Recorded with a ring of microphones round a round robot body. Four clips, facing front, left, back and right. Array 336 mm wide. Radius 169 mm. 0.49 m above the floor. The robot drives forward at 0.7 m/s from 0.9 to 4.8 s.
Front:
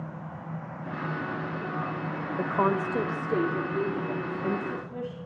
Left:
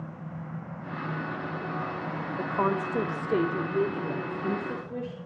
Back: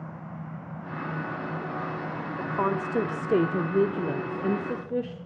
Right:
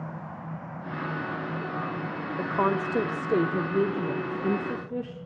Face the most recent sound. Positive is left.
turn(degrees=-175)